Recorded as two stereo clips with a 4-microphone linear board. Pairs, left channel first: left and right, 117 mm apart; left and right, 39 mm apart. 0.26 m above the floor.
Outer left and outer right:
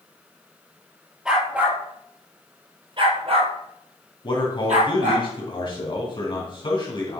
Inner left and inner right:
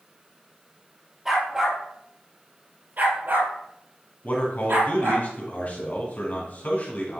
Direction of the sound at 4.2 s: 45° left (ahead or behind).